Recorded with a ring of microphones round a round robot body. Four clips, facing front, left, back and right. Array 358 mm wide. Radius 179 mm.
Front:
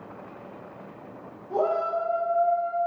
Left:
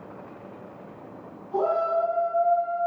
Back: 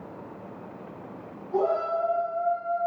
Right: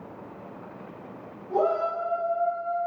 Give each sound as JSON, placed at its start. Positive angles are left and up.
{"t": 1.5, "sound": "a shout", "azimuth_deg": -45, "distance_m": 4.5}